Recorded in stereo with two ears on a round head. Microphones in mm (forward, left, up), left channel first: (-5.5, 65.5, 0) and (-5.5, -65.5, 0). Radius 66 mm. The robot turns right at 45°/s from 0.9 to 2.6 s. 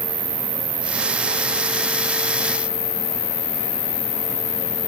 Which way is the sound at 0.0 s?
10° right.